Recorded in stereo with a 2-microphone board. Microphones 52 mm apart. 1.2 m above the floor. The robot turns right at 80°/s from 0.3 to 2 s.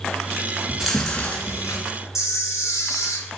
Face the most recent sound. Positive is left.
turn(degrees=65)  # may be behind; listen again after turning